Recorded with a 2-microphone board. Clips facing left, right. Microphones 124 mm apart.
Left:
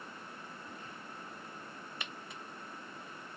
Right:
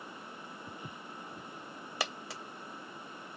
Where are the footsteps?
80° right.